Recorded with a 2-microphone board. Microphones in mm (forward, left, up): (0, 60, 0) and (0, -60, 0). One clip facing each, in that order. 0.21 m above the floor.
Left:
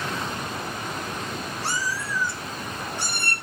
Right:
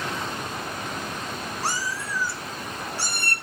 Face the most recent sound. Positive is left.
turn(degrees=25)  # may be behind; listen again after turning